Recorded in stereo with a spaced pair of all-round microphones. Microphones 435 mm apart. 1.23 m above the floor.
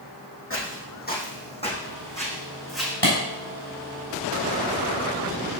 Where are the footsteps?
30° left (ahead or behind), 3.5 m; by 2.9 s centre (ahead or behind), 4.5 m.